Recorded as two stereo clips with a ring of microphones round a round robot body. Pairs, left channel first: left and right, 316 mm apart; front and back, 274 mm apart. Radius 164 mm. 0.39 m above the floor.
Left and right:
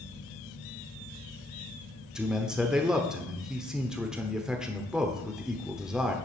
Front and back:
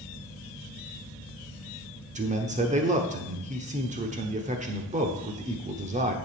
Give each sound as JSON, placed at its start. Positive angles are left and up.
{"t": 2.1, "sound": "a man speaking", "azimuth_deg": -175, "distance_m": 1.2}